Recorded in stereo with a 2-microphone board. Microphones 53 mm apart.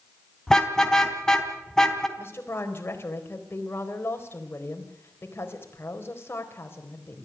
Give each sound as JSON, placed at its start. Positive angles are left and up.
{"t": 0.5, "sound": "a car horn", "side_deg": 10, "distance_m": 3.0}
{"t": 2.2, "sound": "a woman speaking", "side_deg": 45, "distance_m": 4.0}